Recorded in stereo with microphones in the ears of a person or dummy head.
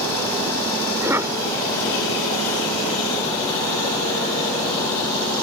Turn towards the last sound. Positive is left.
turn(degrees=-15)  # may be behind; listen again after turning